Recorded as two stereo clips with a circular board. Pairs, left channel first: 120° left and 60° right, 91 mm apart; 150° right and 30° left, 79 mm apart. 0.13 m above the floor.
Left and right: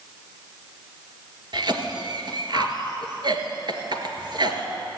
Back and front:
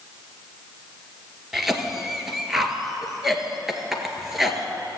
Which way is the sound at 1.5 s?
55° right.